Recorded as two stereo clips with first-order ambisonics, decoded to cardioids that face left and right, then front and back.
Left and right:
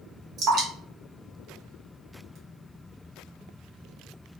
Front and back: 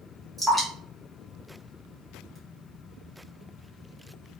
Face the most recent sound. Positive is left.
turn(degrees=-95)